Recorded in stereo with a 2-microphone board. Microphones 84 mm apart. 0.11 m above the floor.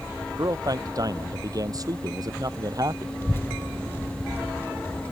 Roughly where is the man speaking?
Right.